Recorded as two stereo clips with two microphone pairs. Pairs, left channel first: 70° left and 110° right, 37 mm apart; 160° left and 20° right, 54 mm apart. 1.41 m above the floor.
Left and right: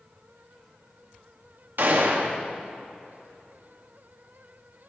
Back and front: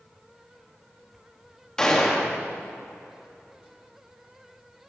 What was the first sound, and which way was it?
A gunshot, 125° right.